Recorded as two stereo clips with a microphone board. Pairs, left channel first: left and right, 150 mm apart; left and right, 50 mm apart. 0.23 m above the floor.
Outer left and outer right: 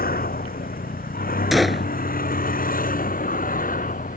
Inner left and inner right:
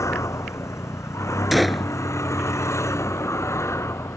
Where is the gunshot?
Centre (ahead or behind).